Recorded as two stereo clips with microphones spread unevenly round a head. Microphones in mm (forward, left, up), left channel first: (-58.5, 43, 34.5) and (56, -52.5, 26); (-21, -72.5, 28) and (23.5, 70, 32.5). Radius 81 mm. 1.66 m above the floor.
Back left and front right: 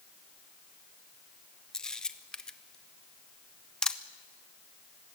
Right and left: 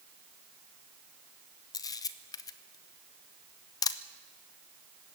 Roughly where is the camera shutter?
Behind right.